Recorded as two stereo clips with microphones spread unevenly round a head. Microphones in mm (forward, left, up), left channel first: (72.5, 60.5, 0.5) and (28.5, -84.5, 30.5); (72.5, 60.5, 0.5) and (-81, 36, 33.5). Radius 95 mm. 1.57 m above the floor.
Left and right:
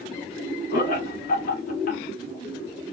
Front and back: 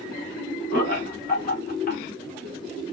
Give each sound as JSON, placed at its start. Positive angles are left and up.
{"t": 0.7, "sound": "laughter", "azimuth_deg": 45, "distance_m": 1.2}